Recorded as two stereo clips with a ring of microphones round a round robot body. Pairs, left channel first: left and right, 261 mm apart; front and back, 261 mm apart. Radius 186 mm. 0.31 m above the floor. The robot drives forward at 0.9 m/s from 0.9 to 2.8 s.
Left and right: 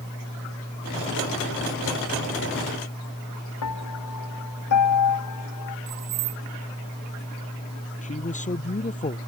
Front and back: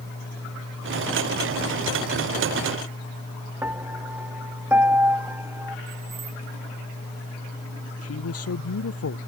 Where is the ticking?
I don't hear ticking.